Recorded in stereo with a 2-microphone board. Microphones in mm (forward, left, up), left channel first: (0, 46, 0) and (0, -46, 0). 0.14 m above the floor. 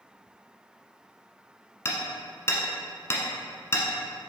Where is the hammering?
30° left (ahead or behind), 1.2 m.